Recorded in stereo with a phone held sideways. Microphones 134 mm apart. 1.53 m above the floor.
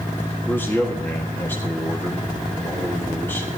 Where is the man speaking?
15° left (ahead or behind), 1.4 m.